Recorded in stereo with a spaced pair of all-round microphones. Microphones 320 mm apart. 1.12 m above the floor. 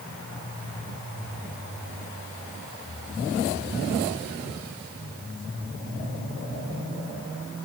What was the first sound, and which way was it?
Only background noise.